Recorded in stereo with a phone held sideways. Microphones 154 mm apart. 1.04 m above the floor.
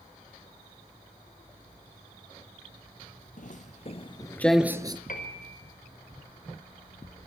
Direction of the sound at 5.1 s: 65° left (ahead or behind).